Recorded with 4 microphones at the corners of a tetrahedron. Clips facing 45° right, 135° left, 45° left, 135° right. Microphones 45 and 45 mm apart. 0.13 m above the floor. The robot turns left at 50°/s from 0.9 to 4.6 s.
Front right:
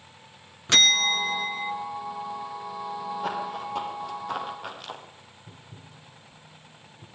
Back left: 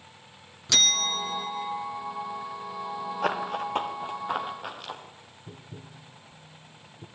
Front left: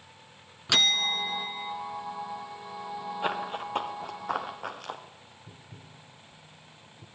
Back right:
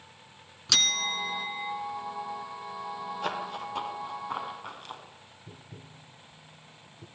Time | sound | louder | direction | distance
0.7 | a bell | front right 5 dB, front left 3 dB | 10° right | 1.4 m
3.2 | running footsteps | back left 6 dB, front left 3 dB | 120° left | 3 m
5.5 | tapping | back left 5 dB, back right 4 dB | 160° left | 1.5 m